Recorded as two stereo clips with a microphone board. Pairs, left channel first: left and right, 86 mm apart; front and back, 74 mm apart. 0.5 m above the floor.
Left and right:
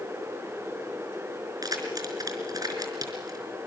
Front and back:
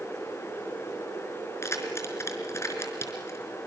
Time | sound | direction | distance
1.6 | keys jangling | 50° right | 4 m